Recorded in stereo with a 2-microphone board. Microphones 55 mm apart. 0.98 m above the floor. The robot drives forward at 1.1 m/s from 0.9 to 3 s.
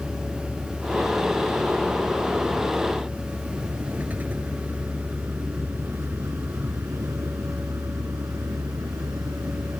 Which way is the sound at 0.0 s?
10° right (ahead or behind).